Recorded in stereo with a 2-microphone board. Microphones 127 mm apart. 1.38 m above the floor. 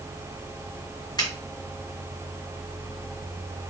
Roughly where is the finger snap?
Left.